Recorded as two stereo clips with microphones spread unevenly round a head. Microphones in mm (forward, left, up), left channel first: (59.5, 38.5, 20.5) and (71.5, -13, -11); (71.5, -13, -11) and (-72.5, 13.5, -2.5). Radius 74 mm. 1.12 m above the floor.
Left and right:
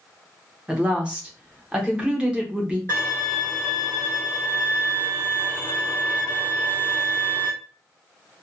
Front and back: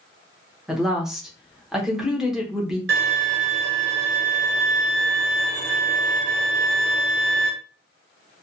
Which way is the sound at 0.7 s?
100° right.